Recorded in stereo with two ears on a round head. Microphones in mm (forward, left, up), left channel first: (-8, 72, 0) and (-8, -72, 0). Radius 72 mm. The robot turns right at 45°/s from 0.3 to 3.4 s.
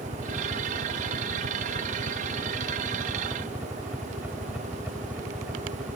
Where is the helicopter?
30° right (ahead or behind); by 6.0 s 5° right (ahead or behind).